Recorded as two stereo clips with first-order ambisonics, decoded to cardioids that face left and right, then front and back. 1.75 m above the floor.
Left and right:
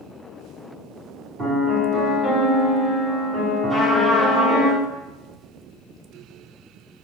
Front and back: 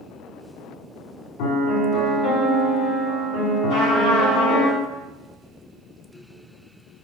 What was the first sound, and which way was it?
A piano, 15° right.